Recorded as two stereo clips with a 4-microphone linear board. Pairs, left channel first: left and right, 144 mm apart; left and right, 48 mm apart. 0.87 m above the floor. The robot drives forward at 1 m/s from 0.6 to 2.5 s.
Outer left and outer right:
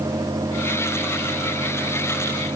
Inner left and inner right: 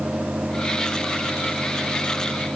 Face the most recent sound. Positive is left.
No sound to turn to.